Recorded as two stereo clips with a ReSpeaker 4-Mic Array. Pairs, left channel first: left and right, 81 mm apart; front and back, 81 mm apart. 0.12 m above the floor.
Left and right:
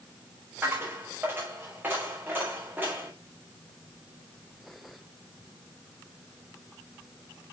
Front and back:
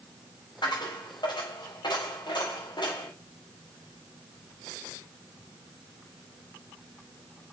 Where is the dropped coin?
25° right, 5 m.